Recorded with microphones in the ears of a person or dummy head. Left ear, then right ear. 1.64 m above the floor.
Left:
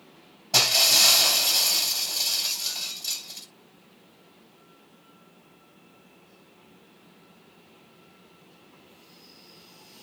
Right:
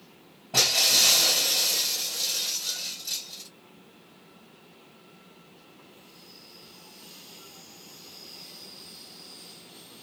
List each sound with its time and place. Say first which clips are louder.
0.5 s breaking glass: left 2 dB; 80° left, 6 m